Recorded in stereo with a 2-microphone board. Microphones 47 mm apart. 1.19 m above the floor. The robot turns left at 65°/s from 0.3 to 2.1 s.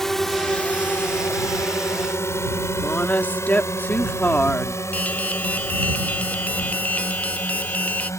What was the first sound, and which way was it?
A drone, 5° left (ahead or behind).